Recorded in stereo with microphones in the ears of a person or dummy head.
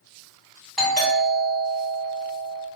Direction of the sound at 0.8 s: 5° left (ahead or behind).